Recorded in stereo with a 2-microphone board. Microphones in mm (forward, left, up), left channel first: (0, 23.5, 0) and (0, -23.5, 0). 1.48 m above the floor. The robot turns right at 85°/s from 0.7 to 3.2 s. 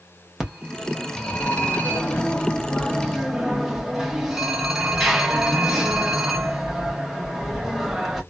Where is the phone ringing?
20° right, 0.9 m; by 8.2 s 165° right, 0.9 m.